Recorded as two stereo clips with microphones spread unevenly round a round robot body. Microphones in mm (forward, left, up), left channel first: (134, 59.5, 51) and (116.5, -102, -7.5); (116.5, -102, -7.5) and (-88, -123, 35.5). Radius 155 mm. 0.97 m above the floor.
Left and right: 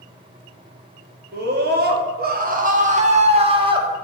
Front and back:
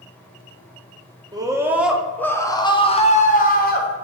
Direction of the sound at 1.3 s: 100° right.